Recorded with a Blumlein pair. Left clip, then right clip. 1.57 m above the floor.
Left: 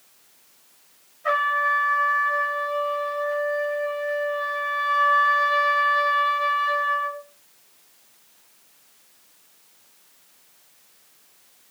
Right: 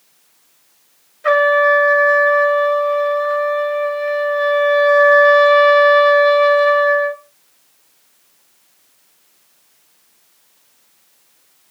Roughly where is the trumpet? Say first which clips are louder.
Right 9 dB; ahead right.